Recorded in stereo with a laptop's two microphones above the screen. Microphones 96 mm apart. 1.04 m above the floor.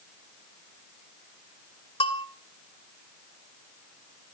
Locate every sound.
2.0 s a bell: 75° left (ahead or behind), 2.5 m